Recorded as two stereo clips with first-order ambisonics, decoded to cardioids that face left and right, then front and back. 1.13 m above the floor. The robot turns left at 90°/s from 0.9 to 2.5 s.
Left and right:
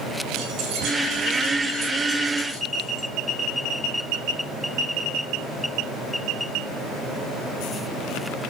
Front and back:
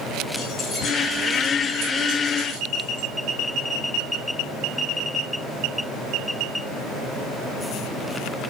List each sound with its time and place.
0.4 s keys jangling: 60° right, 5 m; by 3.1 s 155° left, 5 m